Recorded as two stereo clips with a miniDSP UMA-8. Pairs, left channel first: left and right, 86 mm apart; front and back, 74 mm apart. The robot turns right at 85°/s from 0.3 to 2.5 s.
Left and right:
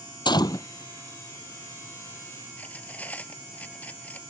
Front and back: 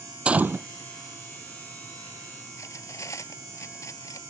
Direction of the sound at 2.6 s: 25° left.